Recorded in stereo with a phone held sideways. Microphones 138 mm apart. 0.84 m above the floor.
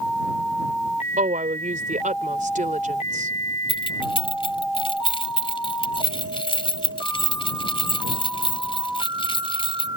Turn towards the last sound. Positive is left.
turn(degrees=40)  # may be behind; listen again after turning